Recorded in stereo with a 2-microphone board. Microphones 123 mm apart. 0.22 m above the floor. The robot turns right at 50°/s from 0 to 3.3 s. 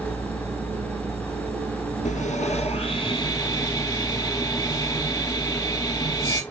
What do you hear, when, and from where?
2.0 s sawing: 90° left, 1.1 m; by 6.4 s 150° left, 1.1 m